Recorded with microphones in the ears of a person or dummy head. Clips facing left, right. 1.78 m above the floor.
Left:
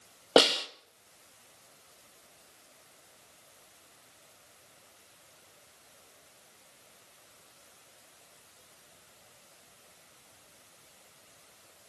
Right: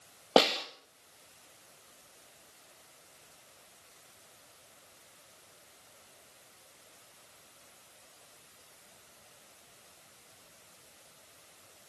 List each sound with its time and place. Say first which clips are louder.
0.4 s a snare drum: left 2 dB; 15° left (ahead or behind), 1.5 m